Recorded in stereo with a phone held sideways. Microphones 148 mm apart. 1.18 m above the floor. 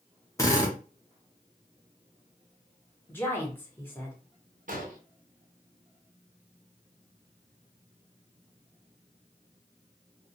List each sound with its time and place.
0.4 s a drill: 20° left (ahead or behind), 0.9 m
3.1 s a woman speaking: 15° left (ahead or behind), 1.1 m
4.7 s an explosion: 65° right (ahead or behind), 0.7 m